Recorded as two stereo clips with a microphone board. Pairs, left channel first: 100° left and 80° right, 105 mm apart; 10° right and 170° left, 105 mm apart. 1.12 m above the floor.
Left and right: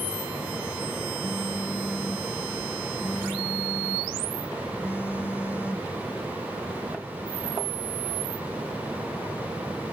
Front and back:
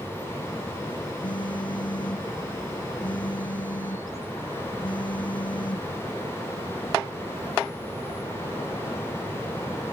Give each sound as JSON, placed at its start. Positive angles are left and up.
{"t": 1.2, "sound": "a phone buzzing", "azimuth_deg": 30}